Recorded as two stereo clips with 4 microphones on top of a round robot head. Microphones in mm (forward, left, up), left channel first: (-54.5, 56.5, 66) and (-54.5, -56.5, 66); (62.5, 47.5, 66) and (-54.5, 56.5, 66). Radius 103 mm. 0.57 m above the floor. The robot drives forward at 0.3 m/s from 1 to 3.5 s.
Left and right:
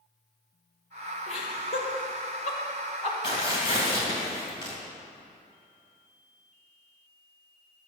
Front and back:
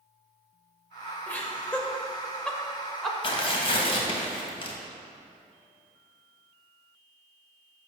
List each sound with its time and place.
1.3 s laughter: 70° left, 2.5 m; by 3.1 s 85° left, 2.5 m
3.2 s tearing paper: 35° left, 2.5 m; by 4.7 s 40° left, 2.5 m